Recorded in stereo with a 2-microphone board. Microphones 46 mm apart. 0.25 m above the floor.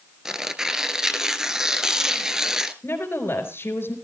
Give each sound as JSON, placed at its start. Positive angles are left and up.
{"t": 0.2, "sound": "tearing paper", "side_deg": -10, "distance_m": 1.2}
{"t": 2.8, "sound": "a woman speaking", "side_deg": 60, "distance_m": 4.0}